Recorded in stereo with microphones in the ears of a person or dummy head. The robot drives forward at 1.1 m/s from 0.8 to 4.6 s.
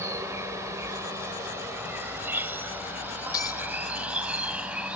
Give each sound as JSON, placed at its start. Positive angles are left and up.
{"t": 0.0, "sound": "an insect", "side_deg": -25}
{"t": 3.3, "sound": "breaking glass", "side_deg": 35}